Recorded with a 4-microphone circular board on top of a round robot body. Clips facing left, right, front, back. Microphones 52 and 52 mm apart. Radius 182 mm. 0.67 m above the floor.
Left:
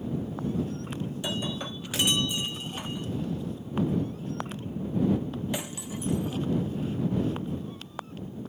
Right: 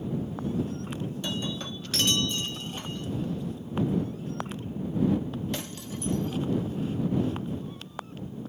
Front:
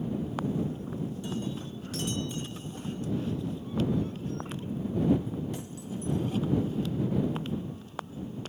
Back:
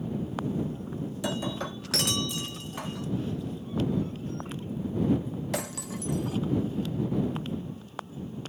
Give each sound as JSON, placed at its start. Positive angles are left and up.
{"t": 1.2, "sound": "breaking glass", "azimuth_deg": 165}